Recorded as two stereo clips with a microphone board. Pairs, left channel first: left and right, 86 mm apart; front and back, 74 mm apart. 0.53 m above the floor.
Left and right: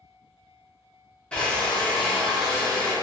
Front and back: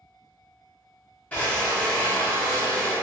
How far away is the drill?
About 0.7 m.